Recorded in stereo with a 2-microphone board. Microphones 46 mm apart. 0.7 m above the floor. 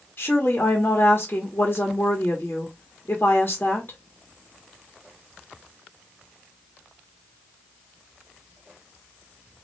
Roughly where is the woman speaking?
Left.